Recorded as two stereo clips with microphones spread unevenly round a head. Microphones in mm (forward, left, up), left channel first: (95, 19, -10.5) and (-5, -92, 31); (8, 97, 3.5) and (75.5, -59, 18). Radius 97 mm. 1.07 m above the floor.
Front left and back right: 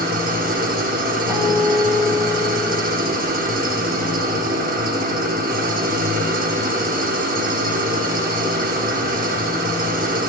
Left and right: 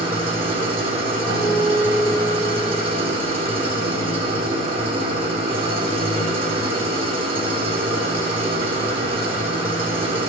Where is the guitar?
55° right, 3.5 m.